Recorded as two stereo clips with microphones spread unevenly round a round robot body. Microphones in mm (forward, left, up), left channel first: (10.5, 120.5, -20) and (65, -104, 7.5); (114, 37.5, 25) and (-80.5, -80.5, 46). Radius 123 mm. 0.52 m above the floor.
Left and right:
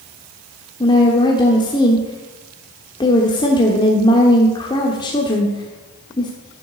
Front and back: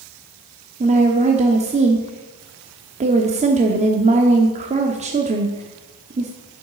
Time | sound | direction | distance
0.8 | a woman speaking | 160° left | 1.1 m